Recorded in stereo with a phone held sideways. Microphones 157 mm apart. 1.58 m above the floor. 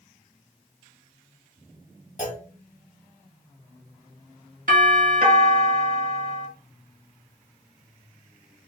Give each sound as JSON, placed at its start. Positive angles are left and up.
{"t": 2.2, "sound": "a clunk", "side_deg": 60, "distance_m": 1.2}
{"t": 4.7, "sound": "a doorbell", "side_deg": -65, "distance_m": 1.5}